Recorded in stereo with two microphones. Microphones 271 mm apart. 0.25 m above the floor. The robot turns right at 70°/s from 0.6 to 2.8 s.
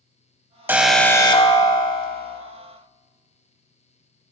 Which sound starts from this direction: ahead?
An alarm, at 0.7 s.